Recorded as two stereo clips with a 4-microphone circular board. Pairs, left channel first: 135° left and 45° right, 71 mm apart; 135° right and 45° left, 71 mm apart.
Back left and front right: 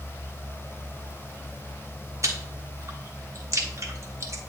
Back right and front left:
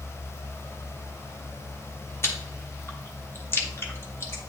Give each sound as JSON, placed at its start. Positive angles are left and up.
{"t": 2.2, "sound": "chewing", "azimuth_deg": -85, "distance_m": 1.0}